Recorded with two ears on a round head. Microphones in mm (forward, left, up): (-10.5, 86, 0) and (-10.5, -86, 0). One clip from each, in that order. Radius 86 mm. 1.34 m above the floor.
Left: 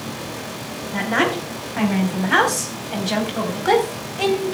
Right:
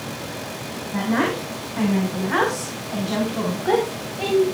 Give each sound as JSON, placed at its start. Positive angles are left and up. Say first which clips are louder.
{"t": 0.9, "sound": "a woman speaking", "louder": "left 3 dB", "side_deg": 70, "distance_m": 4.5}